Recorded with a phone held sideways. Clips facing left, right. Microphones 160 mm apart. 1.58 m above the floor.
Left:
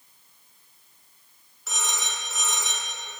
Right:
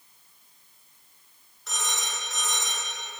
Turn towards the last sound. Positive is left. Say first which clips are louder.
# left 1 dB
turn(degrees=5)  # may be behind; listen again after turning